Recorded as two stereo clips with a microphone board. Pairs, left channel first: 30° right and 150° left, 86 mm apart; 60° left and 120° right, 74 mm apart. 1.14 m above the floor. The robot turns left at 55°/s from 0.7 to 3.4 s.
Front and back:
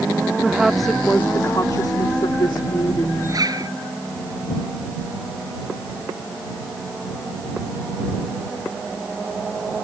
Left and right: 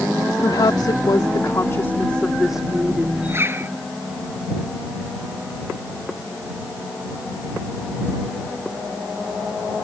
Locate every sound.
0.4 s a woman speaking: 65° left; by 3.2 s 70° right
3.3 s a zipper: 170° right; by 3.7 s 175° right